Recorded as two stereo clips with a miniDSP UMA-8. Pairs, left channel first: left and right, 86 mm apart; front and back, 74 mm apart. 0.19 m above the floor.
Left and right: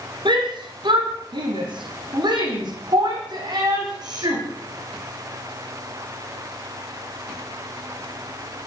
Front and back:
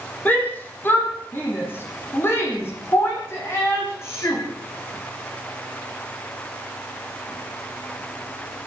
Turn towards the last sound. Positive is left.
turn(degrees=-55)